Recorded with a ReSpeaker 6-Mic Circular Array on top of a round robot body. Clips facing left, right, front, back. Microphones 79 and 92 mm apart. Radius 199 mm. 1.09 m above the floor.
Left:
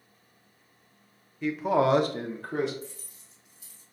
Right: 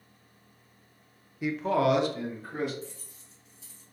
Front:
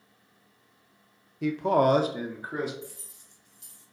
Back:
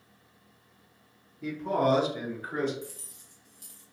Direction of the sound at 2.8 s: 130° left.